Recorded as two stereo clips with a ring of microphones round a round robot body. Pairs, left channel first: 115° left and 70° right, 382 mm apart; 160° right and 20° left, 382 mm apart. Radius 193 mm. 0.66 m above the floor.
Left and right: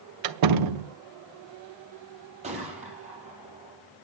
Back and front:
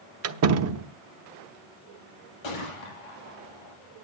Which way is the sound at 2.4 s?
140° right.